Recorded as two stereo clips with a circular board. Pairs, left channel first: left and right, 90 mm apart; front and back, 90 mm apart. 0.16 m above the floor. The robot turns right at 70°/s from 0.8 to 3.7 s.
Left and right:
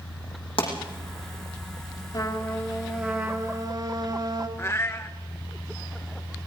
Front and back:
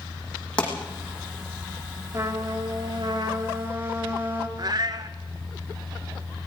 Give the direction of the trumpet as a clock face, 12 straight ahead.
7 o'clock.